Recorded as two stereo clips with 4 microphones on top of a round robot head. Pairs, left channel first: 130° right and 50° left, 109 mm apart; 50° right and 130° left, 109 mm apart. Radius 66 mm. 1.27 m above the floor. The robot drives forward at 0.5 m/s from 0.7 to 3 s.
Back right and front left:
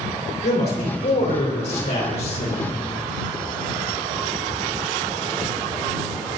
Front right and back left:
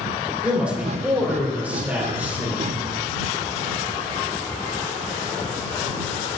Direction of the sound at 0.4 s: 150° right.